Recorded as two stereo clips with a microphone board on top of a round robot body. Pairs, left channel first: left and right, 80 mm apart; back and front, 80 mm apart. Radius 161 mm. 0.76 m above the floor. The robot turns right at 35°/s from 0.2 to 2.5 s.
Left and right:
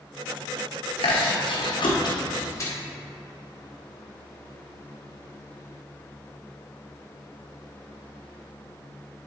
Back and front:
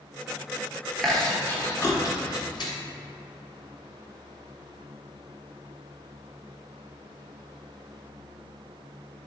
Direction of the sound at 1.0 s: 90° left.